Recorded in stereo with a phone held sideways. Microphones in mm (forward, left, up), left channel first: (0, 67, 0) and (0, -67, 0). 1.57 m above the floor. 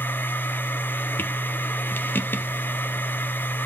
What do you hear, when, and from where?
0.0 s a machine running: 15° left (ahead or behind), 1.0 m